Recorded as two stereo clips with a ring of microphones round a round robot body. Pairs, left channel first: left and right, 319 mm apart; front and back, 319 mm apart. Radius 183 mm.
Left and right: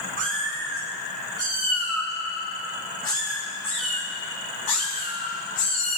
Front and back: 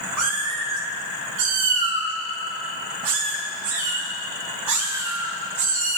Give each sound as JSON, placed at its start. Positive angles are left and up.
{"t": 0.2, "sound": "a cat meowing", "azimuth_deg": -150, "distance_m": 3.0}